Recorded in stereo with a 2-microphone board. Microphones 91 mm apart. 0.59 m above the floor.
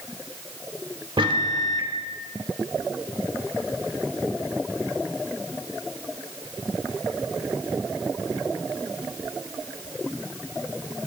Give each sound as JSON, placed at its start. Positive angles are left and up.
{"t": 1.2, "sound": "a microwave", "side_deg": -65, "distance_m": 1.2}